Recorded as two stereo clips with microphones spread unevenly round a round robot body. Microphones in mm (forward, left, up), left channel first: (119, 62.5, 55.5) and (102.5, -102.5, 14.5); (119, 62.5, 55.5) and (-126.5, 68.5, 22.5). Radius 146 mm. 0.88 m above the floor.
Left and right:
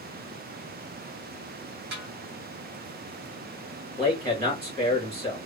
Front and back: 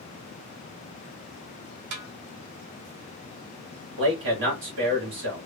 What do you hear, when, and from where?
1.9 s a snare drum: 150° right, 0.5 m
4.0 s a man speaking: 150° right, 2 m